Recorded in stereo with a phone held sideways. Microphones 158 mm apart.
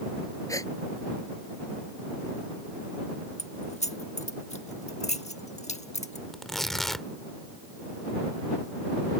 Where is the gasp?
20° left (ahead or behind).